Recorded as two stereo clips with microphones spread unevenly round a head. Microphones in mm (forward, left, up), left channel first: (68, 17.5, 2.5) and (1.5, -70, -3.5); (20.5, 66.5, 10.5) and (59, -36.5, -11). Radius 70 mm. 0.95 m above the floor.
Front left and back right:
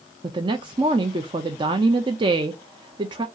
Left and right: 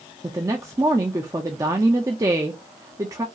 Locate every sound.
0.2 s a woman speaking: 110° right, 0.5 m